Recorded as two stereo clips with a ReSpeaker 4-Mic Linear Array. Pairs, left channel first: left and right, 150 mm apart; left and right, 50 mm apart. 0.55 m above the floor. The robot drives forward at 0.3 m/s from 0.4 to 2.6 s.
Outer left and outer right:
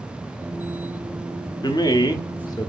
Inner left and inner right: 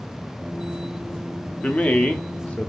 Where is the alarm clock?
I don't hear an alarm clock.